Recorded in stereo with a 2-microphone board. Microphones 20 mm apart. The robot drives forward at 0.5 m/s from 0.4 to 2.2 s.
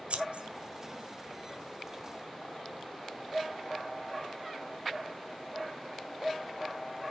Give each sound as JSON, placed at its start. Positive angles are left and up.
{"t": 0.1, "sound": "scissors", "side_deg": -70, "distance_m": 1.5}